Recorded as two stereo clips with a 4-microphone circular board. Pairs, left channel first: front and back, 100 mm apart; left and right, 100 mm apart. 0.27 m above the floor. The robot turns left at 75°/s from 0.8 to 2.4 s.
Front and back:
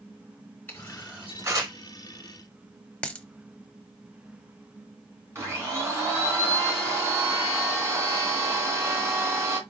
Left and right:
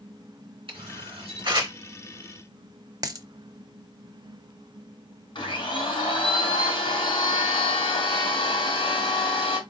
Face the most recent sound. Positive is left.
turn(degrees=125)